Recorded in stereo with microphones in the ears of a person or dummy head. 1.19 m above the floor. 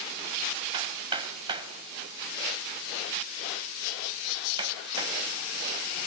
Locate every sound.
0.7 s hammering: 30° right (ahead or behind), 2.5 m